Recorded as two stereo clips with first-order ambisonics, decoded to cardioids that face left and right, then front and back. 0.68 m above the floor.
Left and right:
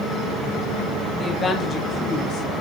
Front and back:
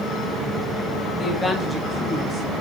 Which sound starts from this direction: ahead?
A woman speaking, at 1.1 s.